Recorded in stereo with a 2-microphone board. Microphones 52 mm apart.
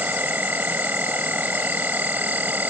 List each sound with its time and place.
0.0 s an insect: 35° right (ahead or behind)